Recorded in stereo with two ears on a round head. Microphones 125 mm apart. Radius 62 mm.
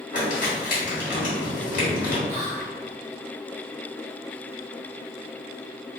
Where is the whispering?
20° right (ahead or behind), 0.6 m.